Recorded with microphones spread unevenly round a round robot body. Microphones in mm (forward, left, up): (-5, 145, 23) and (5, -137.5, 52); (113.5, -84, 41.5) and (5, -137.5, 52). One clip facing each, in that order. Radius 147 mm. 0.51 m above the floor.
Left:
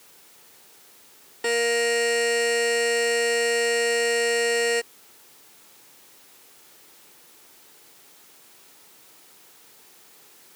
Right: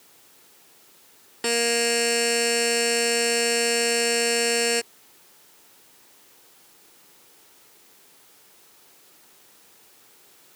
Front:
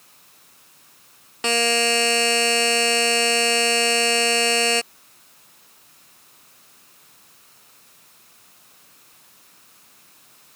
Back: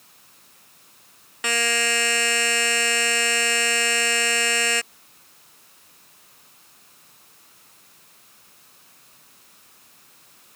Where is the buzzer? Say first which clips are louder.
Left 1 dB, front 5 dB; 30° right.